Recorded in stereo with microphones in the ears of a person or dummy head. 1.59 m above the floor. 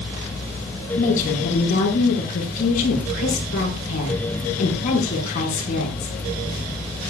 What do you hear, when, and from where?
1.0 s a woman speaking: 45° left (ahead or behind), 5.5 m